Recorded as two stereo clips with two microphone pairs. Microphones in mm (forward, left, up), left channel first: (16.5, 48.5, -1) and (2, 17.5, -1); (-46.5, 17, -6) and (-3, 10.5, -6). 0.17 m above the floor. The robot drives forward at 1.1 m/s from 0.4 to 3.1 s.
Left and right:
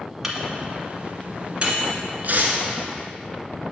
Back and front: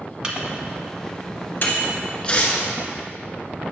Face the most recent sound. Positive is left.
turn(degrees=-155)